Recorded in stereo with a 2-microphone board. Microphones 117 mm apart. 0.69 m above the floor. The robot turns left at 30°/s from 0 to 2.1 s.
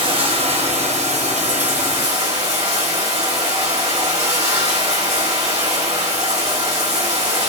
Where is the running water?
45° right, 1.5 m; by 7.5 s 110° right, 1.5 m.